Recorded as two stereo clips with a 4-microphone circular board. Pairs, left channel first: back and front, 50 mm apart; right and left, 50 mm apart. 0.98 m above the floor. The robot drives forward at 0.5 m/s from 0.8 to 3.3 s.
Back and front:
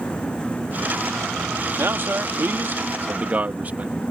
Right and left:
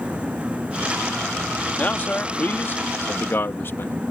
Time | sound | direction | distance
1.8 | a man speaking | 35° right | ?